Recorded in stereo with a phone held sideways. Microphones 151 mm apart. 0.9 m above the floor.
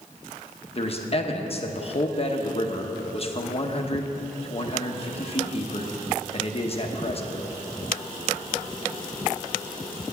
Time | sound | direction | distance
0.8 | a man speaking | 40° left (ahead or behind) | 1.0 m